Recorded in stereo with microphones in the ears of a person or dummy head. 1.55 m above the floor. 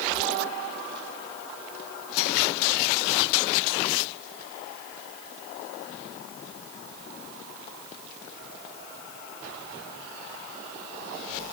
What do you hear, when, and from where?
Only background noise.